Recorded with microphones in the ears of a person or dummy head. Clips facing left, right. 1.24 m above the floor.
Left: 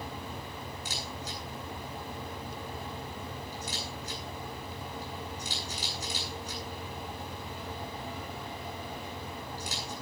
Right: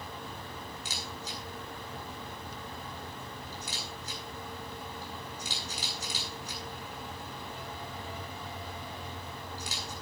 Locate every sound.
0.8 s a camera shutter: 65° right (ahead or behind), 10 m